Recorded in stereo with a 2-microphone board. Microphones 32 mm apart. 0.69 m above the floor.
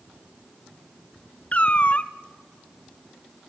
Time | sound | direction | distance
1.5 | a cat meowing | 40° left (ahead or behind) | 0.7 m